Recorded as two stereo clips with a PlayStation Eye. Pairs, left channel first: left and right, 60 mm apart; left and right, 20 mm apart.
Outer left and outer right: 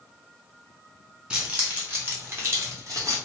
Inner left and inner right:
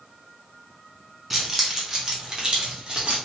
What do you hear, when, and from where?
1.3 s keys jangling: 20° right (ahead or behind), 1.7 m; by 3.2 s 60° right (ahead or behind), 1.6 m